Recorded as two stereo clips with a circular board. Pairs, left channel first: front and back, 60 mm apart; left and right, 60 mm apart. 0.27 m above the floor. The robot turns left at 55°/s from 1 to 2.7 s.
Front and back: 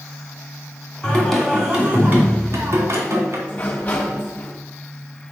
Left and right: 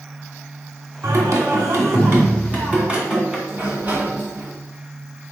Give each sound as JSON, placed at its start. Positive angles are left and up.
{"t": 1.0, "sound": "singing", "azimuth_deg": -70, "distance_m": 2.0}
{"t": 3.5, "sound": "a sliding door", "azimuth_deg": -50, "distance_m": 1.9}